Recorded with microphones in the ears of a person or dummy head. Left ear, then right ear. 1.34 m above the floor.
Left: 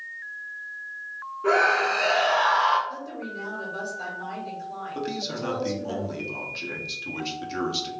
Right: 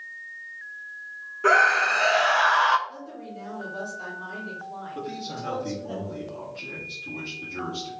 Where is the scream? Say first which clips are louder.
Right 2 dB; 55° right (ahead or behind), 0.5 m.